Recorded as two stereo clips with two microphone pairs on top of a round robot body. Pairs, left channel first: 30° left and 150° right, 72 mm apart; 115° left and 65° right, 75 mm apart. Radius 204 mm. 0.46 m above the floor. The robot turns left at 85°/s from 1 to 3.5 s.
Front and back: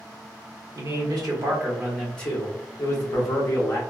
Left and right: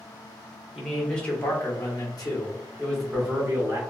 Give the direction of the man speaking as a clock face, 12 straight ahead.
5 o'clock.